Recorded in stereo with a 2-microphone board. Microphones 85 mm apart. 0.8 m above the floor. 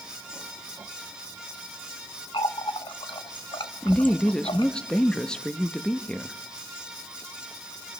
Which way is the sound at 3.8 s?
10° left (ahead or behind).